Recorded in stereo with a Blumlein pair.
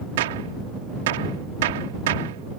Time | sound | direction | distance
0.2 | a gunshot | 55° right | ?